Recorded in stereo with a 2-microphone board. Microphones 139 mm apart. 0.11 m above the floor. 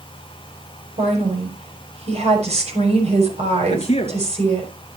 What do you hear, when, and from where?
1.0 s a woman speaking: 50° right (ahead or behind), 5.5 m
3.7 s a man speaking: 45° left (ahead or behind), 1.7 m